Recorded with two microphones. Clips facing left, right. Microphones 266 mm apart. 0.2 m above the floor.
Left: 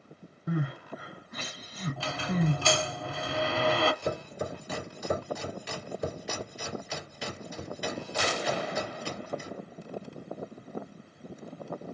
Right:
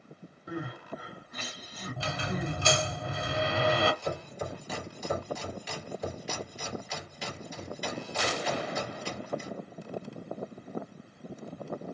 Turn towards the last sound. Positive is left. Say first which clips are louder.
# left 2 dB
turn(degrees=65)  # may be behind; listen again after turning